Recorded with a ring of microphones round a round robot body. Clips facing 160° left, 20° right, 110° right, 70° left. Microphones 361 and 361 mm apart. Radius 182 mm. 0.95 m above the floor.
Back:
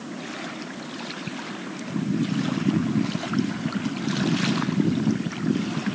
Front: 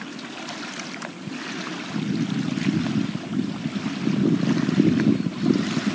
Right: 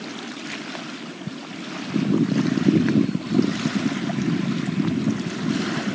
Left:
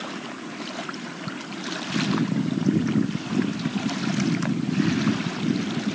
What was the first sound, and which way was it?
Only background noise.